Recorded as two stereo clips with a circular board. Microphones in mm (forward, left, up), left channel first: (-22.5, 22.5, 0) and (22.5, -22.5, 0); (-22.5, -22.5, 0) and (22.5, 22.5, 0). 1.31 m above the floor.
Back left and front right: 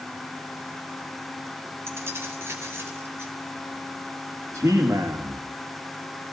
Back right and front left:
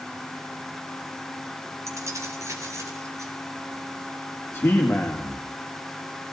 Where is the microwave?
No microwave in this recording.